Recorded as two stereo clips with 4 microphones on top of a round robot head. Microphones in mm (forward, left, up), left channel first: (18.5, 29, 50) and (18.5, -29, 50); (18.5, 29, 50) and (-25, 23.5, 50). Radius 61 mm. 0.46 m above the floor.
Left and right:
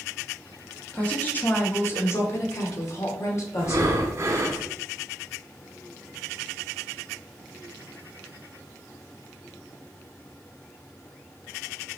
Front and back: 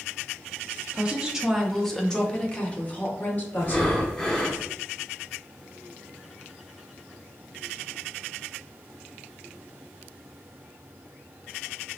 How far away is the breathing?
About 1.1 m.